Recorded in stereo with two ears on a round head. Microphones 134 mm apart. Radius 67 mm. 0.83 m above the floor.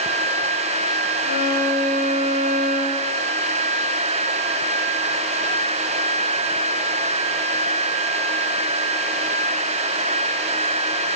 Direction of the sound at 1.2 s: 55° right (ahead or behind).